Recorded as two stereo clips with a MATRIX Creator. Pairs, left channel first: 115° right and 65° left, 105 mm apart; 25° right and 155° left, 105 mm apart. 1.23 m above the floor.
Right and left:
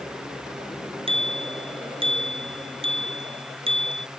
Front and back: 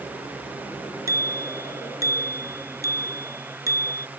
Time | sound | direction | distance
1.1 | a bicycle bell | 95° left | ?